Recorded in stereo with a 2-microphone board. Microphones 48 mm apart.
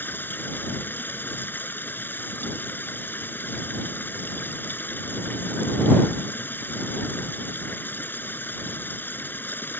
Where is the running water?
45° left (ahead or behind).